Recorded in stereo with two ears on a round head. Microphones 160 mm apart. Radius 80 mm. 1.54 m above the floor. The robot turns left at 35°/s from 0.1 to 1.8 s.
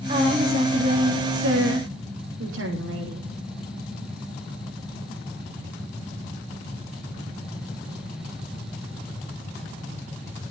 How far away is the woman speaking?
About 4 m.